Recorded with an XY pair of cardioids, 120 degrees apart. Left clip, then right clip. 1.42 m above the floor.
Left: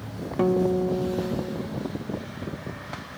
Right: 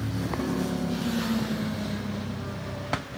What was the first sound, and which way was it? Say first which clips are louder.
A guitar: left 12 dB; 50° left.